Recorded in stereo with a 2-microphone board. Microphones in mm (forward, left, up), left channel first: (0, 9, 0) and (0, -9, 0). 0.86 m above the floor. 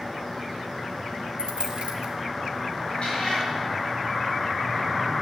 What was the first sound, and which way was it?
A dropped coin, 65° right (ahead or behind).